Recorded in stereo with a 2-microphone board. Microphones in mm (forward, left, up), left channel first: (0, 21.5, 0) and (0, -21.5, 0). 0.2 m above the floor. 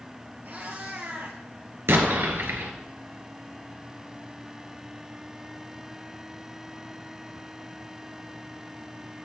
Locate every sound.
0.5 s a cat meowing: 45° right (ahead or behind), 2.5 m
1.9 s an explosion: 70° right (ahead or behind), 2 m